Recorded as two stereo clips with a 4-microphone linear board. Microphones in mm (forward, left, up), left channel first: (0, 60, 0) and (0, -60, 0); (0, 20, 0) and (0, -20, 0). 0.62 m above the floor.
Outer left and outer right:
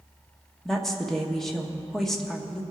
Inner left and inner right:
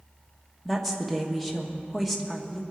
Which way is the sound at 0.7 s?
5° left (ahead or behind).